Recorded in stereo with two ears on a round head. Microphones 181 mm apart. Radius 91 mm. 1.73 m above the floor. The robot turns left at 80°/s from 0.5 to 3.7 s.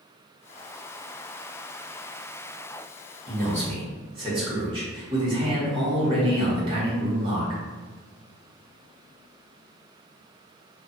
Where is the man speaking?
115° right, 1.3 m; by 7.6 s 150° right, 1.3 m.